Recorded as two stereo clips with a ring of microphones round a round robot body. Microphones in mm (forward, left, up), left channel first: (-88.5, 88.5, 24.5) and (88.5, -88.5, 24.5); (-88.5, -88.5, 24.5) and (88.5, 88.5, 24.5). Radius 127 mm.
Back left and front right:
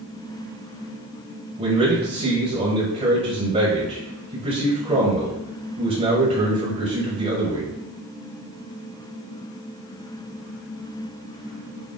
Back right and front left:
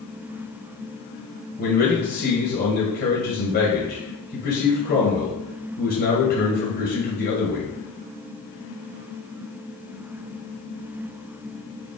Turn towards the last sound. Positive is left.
turn(degrees=-105)